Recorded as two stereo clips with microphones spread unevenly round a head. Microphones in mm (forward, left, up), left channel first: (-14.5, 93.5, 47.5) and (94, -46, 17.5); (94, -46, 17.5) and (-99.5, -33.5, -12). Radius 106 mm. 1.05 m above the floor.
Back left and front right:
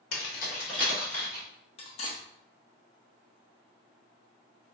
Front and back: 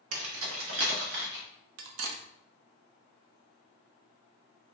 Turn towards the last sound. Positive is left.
turn(degrees=-170)